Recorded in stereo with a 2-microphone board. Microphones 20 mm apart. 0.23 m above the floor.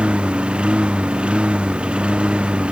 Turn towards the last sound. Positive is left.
turn(degrees=-65)  # may be behind; listen again after turning